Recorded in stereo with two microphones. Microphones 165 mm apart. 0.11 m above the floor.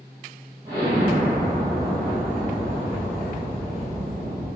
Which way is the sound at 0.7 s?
25° right (ahead or behind).